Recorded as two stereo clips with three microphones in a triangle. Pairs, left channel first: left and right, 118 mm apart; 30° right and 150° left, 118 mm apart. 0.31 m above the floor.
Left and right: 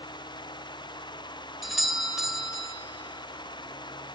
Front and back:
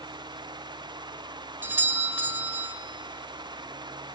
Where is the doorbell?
175° right, 1.4 m.